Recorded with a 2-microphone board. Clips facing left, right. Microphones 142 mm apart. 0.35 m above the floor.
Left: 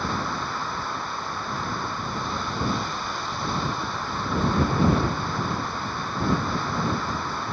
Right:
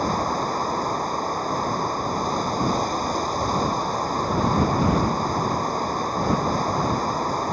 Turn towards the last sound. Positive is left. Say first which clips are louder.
# right 5 dB
turn(degrees=-40)  # may be behind; listen again after turning